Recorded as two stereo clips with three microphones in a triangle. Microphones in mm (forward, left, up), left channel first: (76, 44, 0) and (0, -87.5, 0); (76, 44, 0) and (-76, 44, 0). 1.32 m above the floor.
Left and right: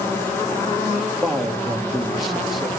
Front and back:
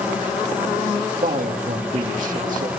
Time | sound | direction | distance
1.2 | a man speaking | 150° left | 2.5 m